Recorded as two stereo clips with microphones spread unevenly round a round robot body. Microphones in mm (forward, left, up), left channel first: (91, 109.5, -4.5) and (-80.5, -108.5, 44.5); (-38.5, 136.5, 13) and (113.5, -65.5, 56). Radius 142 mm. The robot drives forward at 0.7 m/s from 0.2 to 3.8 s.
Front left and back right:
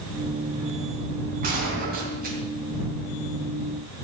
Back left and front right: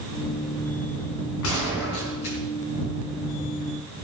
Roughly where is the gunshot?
Behind.